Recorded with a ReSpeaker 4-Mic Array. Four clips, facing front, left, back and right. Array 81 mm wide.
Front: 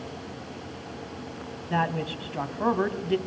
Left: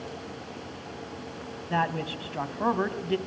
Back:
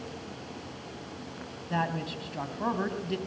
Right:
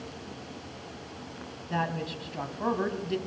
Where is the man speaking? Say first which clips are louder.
Left 3 dB, front 4 dB; 55° left, 1.3 m.